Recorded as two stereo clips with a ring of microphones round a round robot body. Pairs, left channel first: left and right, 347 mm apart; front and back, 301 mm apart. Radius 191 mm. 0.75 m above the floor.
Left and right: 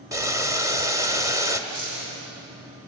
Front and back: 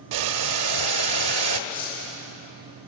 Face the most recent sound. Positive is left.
turn(degrees=-60)